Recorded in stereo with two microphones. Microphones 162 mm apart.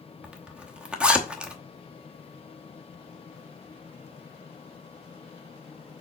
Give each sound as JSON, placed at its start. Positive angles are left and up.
{"t": 0.2, "sound": "a zipper", "side_deg": -5, "distance_m": 0.9}